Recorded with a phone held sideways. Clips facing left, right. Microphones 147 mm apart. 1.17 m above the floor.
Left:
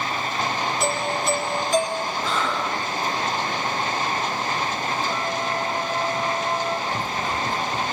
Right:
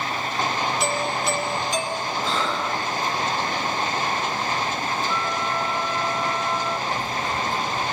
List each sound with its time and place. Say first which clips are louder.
0.8 s a doorbell: left 1 dB; 50° left (ahead or behind), 5 m
2.2 s breathing: right 1 dB; 25° right (ahead or behind), 6 m
5.1 s a flute: even; 45° left (ahead or behind), 1.7 m
6.9 s running footsteps: even; 35° left (ahead or behind), 1.6 m; by 7.9 s 50° left (ahead or behind), 2.5 m